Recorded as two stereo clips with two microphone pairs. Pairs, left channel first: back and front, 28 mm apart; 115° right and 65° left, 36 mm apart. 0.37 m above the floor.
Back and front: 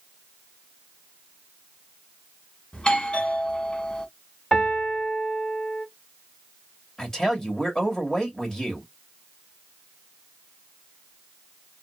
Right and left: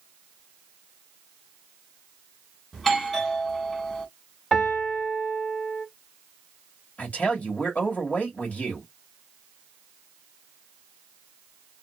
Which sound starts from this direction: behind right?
A man speaking, at 7.0 s.